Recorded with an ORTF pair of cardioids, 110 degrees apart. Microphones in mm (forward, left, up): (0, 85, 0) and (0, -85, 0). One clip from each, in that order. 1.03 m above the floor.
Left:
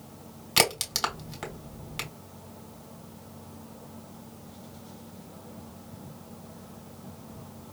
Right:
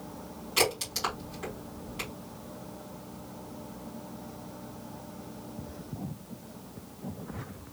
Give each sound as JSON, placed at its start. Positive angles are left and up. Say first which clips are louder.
{"t": 0.6, "sound": "a crack", "louder": "left 3 dB", "azimuth_deg": 70, "distance_m": 3.0}